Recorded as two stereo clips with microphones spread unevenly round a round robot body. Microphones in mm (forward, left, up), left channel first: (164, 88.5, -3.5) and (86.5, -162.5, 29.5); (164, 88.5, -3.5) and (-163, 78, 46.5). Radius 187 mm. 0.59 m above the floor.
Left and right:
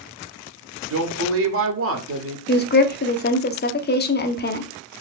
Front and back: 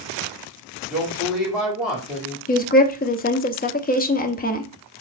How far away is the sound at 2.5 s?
About 0.8 m.